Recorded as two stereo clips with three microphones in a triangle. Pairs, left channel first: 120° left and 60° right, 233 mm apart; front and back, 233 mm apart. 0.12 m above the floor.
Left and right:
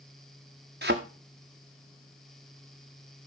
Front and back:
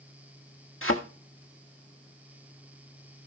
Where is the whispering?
No whispering in this recording.